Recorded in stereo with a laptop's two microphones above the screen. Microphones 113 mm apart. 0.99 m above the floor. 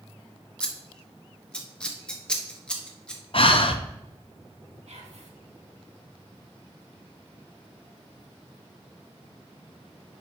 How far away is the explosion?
I don't hear an explosion.